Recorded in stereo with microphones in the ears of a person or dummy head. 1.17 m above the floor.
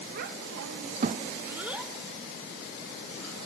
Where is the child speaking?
45° right (ahead or behind), 0.8 m; by 3.3 s 10° left (ahead or behind), 2.5 m.